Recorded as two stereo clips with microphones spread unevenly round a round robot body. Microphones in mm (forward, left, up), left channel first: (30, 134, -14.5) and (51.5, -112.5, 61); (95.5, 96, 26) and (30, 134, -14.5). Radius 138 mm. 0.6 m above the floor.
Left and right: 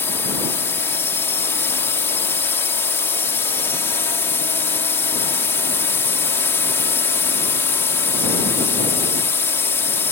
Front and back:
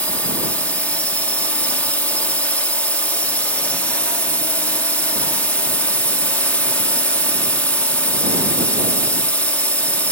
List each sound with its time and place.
0.0 s a drone: 85° left